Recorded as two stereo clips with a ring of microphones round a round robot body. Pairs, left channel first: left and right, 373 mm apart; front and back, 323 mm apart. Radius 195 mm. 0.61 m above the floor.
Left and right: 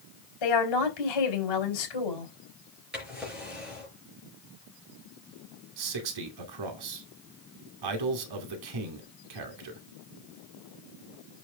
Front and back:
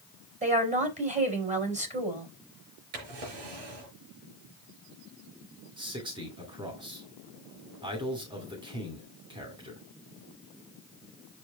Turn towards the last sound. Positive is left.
turn(degrees=-105)